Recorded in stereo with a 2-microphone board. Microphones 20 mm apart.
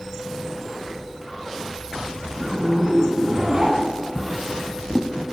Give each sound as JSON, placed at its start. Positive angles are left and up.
{"t": 2.3, "sound": "a zipper", "side_deg": -30, "distance_m": 1.4}
{"t": 4.2, "sound": "a drawer", "side_deg": -15, "distance_m": 0.7}